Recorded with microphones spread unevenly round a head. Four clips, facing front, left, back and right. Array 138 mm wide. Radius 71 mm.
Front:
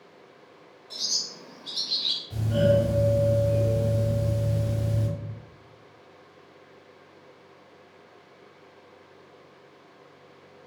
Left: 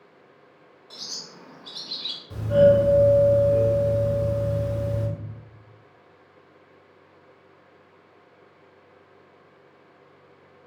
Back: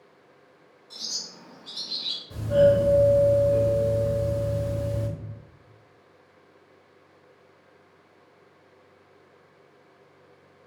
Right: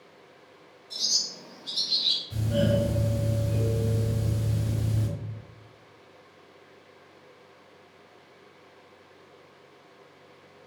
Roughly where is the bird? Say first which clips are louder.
Right 1 dB, front 2 dB; ahead left.